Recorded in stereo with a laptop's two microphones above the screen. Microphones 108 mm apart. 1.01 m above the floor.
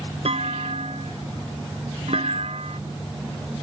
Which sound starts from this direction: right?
A clunk, at 0.2 s.